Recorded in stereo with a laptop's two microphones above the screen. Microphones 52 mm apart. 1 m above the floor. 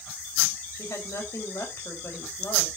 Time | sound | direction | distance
0.8 | a woman speaking | 65° left (ahead or behind) | 4 m